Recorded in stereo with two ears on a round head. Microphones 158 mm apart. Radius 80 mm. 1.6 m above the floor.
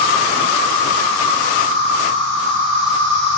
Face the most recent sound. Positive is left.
turn(degrees=-70)  # may be behind; listen again after turning